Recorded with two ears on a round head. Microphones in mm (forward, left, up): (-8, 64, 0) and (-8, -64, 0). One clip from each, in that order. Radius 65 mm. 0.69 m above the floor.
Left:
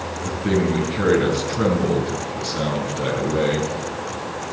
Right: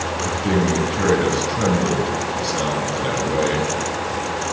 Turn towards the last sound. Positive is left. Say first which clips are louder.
# even
turn(degrees=-25)  # may be behind; listen again after turning